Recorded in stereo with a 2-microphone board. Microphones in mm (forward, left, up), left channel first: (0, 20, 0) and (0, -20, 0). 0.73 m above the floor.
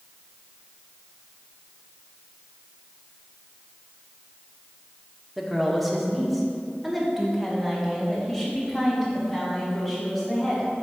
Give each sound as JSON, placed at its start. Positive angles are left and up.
{"t": 5.4, "sound": "a woman speaking", "side_deg": -5, "distance_m": 1.3}